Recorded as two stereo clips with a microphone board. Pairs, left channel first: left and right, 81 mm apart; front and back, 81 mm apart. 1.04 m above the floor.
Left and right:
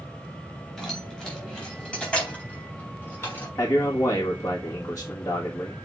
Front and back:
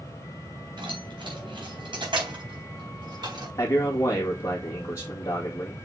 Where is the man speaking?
45° left, 1.9 m.